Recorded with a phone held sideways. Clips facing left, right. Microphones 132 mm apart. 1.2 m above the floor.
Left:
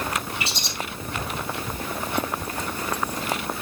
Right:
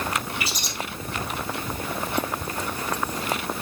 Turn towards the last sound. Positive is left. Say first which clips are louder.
# even
turn(degrees=25)  # may be behind; listen again after turning